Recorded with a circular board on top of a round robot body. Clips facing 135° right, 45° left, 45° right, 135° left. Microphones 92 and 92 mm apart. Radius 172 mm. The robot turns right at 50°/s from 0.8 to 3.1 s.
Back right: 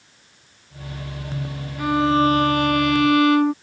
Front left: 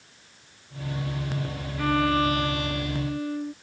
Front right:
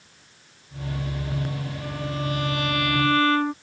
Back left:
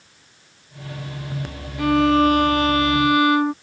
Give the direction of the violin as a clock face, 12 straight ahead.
7 o'clock.